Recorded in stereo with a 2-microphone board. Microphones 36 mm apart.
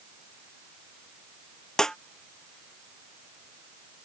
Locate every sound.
1.8 s a snare drum: 15° left (ahead or behind)